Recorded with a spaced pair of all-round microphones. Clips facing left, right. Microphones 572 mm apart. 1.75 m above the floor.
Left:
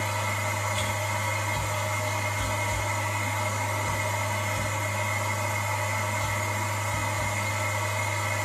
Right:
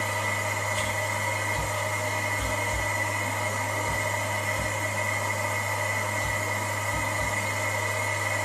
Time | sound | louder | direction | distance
0.0 | a machine running | right 1 dB | 30° left (ahead or behind) | 1.4 m